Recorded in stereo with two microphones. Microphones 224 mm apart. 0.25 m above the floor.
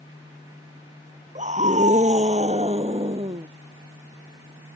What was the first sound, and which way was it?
A scream, 30° right (ahead or behind).